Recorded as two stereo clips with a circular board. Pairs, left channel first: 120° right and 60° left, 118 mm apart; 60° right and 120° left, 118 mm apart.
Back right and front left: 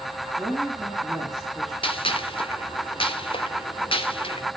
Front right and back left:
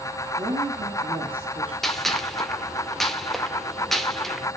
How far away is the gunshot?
About 1.0 m.